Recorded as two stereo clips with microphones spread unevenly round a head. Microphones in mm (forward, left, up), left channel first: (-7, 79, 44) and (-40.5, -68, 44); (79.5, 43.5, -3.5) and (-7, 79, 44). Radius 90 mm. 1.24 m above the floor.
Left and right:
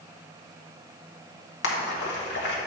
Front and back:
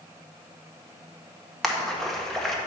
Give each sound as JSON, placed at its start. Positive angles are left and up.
{"t": 1.6, "sound": "a splash", "azimuth_deg": 65, "distance_m": 1.2}